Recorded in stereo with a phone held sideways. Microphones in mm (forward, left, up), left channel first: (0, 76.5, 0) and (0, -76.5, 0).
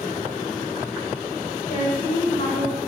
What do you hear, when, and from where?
1.7 s a woman speaking: 70° left (ahead or behind), 2.5 m